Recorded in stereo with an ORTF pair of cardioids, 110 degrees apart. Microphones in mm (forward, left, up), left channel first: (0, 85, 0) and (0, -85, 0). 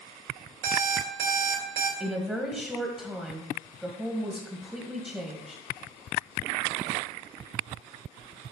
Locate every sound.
0.6 s an alarm clock: 70° right, 2.5 m
2.0 s a woman speaking: straight ahead, 1.6 m